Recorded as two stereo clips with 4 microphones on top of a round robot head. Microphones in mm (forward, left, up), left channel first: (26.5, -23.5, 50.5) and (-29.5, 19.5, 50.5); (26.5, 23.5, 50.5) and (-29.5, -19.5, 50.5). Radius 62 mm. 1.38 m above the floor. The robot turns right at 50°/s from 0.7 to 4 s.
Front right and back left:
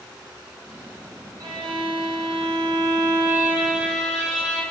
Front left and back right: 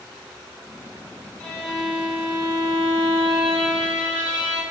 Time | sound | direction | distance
1.4 | a violin | 105° left | 0.6 m